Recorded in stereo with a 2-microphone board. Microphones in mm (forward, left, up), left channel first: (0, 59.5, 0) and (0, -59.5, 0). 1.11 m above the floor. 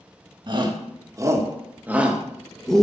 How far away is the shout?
About 1.7 m.